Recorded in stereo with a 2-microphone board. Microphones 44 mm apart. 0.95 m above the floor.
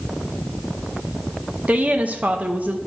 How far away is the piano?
I don't hear a piano.